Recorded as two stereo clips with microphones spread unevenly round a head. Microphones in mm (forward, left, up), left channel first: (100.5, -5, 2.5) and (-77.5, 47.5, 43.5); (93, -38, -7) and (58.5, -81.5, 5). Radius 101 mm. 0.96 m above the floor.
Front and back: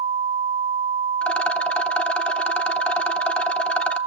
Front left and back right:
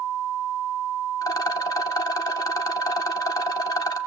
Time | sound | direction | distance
1.2 | a rattle | 70° left | 0.9 m